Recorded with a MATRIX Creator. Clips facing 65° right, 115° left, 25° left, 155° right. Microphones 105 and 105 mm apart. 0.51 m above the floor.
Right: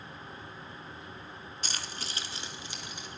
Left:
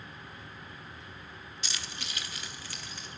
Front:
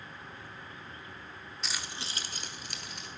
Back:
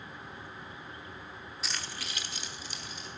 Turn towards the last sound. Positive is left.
turn(degrees=5)